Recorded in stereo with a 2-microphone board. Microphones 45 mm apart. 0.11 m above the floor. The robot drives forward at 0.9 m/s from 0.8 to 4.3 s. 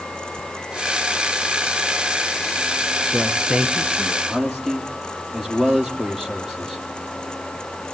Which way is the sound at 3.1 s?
15° right (ahead or behind).